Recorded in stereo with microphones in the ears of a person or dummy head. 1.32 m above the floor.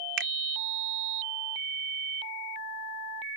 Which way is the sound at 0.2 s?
65° right (ahead or behind).